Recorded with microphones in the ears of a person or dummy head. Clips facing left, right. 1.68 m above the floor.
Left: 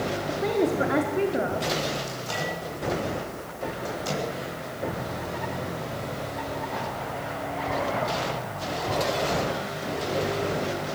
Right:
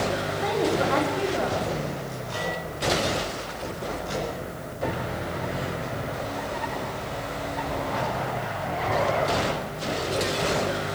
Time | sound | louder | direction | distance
0.3 | a woman speaking | left 3 dB | 30° left (ahead or behind) | 5 m
2.1 | a microwave | even | 90° left | 10 m